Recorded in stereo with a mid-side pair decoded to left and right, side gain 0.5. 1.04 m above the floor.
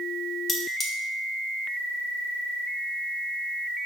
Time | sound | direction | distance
0.5 | cutlery clinking | 45° left | 0.9 m